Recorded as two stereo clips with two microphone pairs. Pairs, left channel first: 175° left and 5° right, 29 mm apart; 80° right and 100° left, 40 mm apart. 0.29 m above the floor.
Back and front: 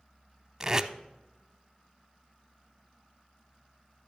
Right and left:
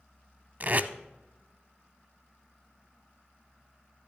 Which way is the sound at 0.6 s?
60° left.